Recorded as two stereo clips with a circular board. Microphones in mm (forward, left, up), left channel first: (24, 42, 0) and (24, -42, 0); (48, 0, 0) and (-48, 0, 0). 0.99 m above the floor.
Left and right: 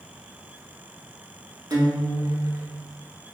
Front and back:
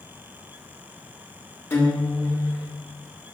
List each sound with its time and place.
1.7 s a guitar: 60° right, 1.0 m